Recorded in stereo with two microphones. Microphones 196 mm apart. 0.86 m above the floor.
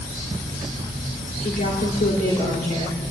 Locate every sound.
1.4 s a woman speaking: 50° left (ahead or behind), 3 m